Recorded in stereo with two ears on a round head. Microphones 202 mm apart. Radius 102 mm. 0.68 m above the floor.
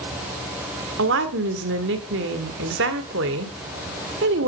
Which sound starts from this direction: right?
A woman speaking, at 1.0 s.